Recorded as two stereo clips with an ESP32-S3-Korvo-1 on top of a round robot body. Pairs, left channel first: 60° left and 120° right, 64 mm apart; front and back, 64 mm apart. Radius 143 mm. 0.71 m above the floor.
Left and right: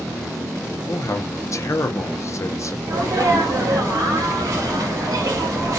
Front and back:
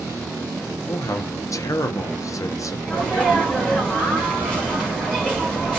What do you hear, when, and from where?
0.9 s a man speaking: 25° left, 0.8 m
2.9 s a sneeze: 75° right, 2.5 m